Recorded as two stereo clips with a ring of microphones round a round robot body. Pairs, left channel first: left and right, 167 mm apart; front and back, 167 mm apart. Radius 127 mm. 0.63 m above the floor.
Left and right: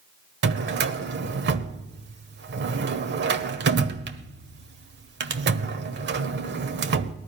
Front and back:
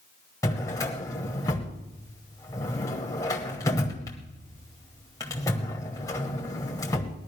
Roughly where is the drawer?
Right.